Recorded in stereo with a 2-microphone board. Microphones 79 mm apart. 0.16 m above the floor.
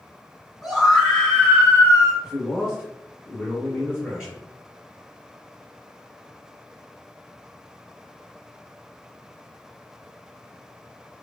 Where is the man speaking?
10° right (ahead or behind), 1.8 m.